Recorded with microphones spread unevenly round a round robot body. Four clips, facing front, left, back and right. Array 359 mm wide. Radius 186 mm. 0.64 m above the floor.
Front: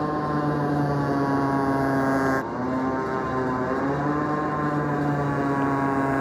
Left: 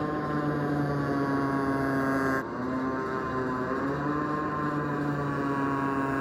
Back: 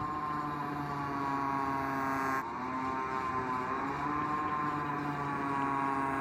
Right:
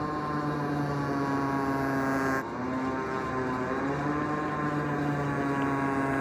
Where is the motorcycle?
5° left; by 6.2 s 10° right.